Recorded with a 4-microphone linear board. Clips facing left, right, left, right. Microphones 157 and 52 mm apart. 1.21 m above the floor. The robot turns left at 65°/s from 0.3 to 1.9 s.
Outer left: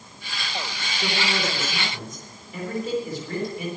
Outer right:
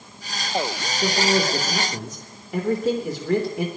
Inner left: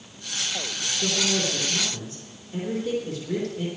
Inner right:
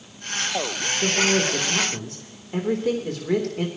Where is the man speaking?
25° right, 3.5 m; by 3.7 s 85° right, 3.5 m.